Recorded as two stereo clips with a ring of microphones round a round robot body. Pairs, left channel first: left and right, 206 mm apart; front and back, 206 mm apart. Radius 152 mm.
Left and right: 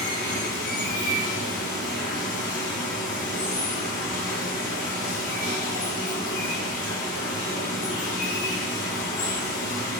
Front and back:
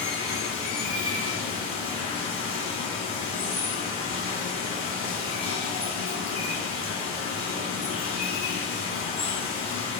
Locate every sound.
0.0 s running water: 60° left, 1.8 m